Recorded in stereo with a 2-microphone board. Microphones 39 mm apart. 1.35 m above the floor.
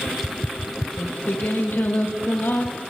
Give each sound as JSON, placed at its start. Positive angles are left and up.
{"t": 1.0, "sound": "singing", "side_deg": 60, "distance_m": 0.9}